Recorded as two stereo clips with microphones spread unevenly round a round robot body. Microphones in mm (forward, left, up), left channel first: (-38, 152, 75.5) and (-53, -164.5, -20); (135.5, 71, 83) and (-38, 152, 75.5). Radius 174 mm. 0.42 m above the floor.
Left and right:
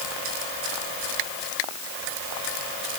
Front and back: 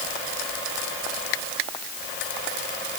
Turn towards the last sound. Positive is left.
No sound to turn to.